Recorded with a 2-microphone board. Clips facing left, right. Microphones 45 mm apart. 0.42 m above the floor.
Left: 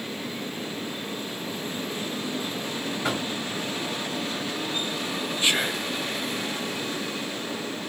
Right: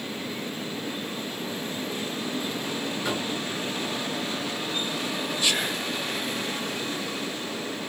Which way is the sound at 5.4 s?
30° left (ahead or behind).